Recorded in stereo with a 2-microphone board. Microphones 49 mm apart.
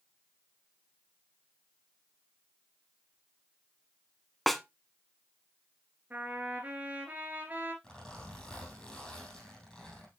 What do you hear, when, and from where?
4.5 s a snare drum: centre (ahead or behind), 0.6 m
6.1 s a trumpet: 35° right (ahead or behind), 3 m
7.8 s a zipper: 20° left (ahead or behind), 4 m